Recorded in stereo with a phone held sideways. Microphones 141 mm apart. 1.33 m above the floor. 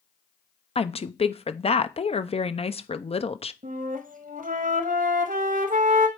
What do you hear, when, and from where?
0.8 s a woman speaking: 45° left (ahead or behind), 0.6 m
3.6 s a flute: 75° right (ahead or behind), 1.4 m